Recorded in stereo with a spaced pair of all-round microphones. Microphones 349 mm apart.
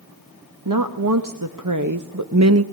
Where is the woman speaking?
65° right (ahead or behind), 1.6 m; by 2.6 s 40° right (ahead or behind), 0.6 m.